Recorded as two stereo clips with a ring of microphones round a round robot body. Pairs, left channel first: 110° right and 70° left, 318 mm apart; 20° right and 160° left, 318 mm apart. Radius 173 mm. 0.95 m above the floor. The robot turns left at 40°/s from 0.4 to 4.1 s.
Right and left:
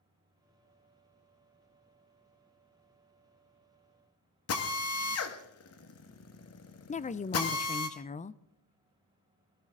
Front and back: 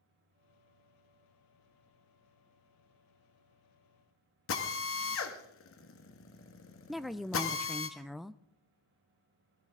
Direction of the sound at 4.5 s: 70° right.